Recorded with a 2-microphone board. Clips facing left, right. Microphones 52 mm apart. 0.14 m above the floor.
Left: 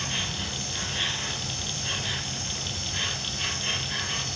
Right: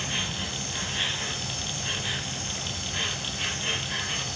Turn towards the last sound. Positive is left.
turn(degrees=-5)  # may be behind; listen again after turning